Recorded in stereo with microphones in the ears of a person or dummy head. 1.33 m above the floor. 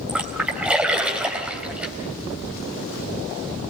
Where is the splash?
5° right (ahead or behind), 3.5 m.